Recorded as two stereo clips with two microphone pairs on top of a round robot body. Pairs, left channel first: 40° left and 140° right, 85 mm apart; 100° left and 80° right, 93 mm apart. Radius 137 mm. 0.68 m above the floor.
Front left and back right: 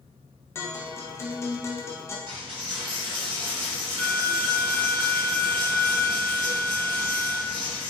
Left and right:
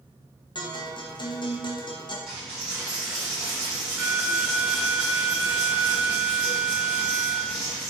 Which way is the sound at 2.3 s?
165° right.